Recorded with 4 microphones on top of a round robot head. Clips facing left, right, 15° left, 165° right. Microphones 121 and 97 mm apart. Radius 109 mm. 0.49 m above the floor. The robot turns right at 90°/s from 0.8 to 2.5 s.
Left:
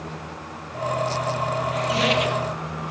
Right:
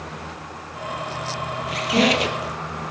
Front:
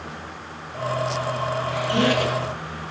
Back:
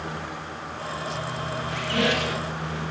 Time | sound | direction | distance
1.7 | a squeak | 80° right | 4 m